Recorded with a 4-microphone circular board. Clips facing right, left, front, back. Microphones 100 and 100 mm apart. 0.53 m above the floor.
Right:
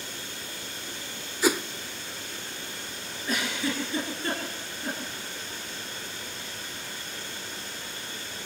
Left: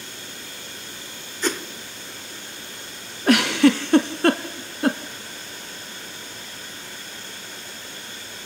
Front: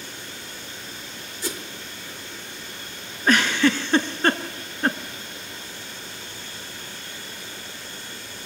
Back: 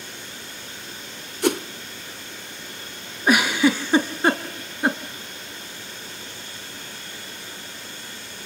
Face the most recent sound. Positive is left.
turn(degrees=100)